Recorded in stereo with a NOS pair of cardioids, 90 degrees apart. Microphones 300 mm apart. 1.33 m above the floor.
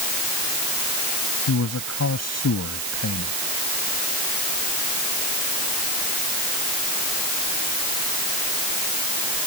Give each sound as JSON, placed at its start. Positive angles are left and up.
{"t": 1.5, "sound": "a man speaking", "azimuth_deg": 60}